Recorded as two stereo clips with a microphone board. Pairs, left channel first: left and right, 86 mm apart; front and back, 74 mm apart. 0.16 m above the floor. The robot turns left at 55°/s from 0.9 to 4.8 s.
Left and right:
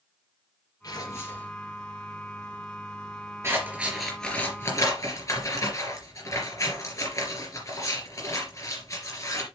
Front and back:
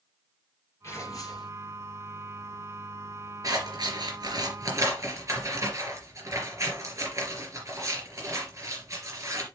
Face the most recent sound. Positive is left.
turn(degrees=140)